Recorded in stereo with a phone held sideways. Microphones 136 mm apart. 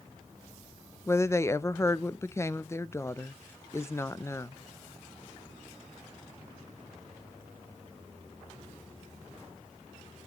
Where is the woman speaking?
20° left (ahead or behind), 0.5 m.